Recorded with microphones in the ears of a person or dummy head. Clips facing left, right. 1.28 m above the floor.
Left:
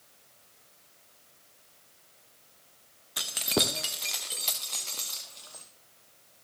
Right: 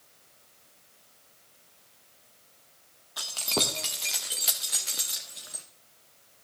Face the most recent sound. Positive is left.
turn(degrees=-20)  # may be behind; listen again after turning